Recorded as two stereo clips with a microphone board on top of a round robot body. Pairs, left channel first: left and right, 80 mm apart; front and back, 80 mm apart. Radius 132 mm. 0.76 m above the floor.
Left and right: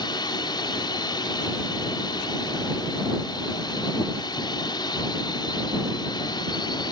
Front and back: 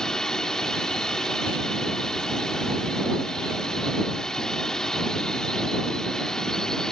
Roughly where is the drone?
Left.